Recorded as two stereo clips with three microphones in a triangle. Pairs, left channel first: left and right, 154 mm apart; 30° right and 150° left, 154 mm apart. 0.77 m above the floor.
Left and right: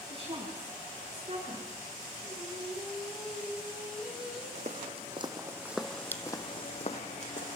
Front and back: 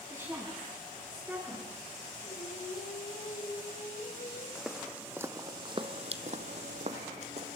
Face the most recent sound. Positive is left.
turn(degrees=110)